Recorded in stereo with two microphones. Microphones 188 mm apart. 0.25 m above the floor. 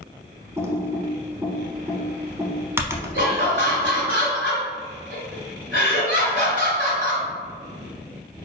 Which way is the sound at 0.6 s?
15° right (ahead or behind).